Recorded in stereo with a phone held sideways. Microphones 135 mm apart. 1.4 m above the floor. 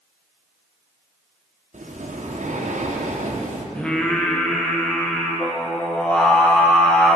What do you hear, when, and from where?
1.7 s breathing: 60° right (ahead or behind), 1.2 m
3.8 s singing: 10° left (ahead or behind), 1.5 m